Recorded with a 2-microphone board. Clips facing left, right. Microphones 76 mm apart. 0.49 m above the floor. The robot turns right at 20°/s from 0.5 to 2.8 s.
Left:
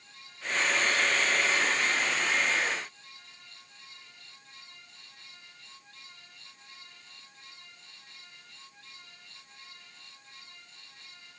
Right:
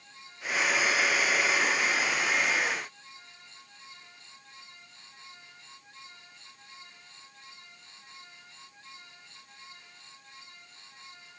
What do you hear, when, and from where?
Only background noise.